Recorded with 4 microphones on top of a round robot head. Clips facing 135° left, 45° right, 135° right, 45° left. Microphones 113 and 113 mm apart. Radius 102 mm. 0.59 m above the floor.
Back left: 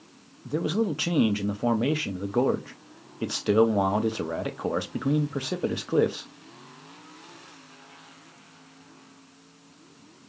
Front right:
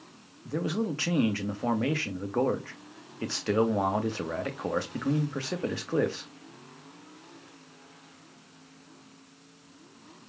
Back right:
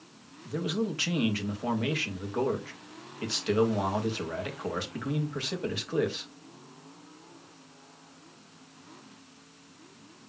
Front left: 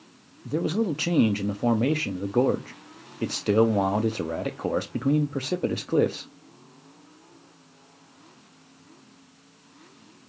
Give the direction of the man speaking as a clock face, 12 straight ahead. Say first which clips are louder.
Back left 4 dB, front left 6 dB; 10 o'clock.